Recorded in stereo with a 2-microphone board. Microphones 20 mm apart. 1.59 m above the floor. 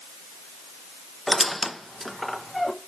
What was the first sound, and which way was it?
A squeak, 5° left (ahead or behind).